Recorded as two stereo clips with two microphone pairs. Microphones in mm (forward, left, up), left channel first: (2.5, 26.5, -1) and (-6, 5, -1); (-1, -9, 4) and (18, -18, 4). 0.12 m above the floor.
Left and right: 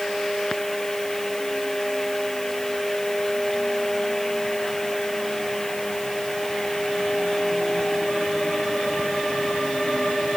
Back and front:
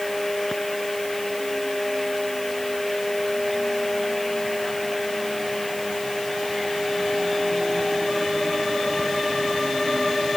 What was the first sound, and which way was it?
Only background noise.